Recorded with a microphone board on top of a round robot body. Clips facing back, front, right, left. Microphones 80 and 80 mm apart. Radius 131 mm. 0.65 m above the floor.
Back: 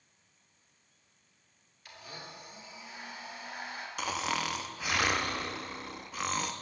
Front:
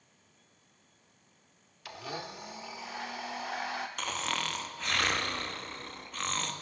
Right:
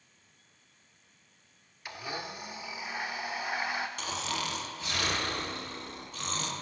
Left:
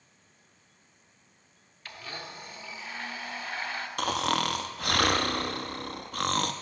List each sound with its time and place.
1.9 s a blender: 15° right, 0.6 m
4.0 s snoring: 100° left, 0.9 m